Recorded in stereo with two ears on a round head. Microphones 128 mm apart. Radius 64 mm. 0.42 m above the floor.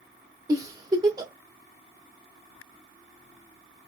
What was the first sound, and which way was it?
A giggle, 25° right (ahead or behind).